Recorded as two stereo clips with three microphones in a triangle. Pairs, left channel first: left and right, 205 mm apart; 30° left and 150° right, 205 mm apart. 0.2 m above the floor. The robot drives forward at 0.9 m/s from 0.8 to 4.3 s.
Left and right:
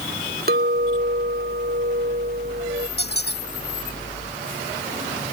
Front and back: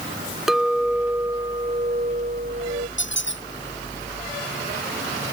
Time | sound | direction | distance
0.5 | a clink | 60° right | ?
3.0 | a squeak | 50° left | ?